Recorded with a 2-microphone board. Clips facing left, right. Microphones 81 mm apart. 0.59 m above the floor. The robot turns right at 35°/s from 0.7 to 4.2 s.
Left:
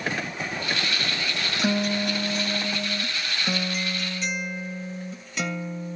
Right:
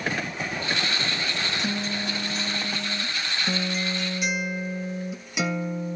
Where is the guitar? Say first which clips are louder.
Left 5 dB; 100° left, 2 m; by 6.0 s 170° right, 2 m.